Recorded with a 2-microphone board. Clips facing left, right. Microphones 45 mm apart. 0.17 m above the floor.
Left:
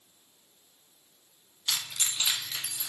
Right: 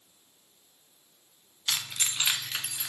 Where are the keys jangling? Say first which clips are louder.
Right 1 dB; 20° right (ahead or behind), 0.7 m; by 2.9 s 55° right (ahead or behind), 1.2 m.